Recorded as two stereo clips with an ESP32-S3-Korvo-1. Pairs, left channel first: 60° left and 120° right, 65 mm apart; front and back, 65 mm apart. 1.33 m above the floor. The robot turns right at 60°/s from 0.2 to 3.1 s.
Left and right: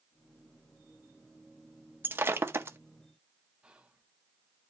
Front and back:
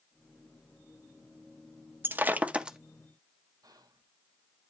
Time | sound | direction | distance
2.0 | breaking glass | 150° right | 0.6 m
3.6 | whispering | 170° left | 1.0 m